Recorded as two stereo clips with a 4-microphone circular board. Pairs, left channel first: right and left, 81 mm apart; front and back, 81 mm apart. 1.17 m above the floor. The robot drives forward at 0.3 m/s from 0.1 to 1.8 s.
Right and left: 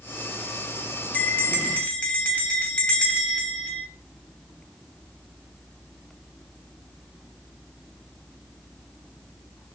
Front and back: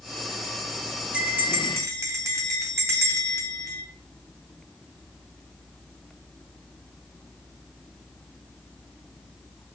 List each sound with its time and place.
1.1 s a bell: 130° right, 0.5 m; by 3.8 s 155° right, 0.6 m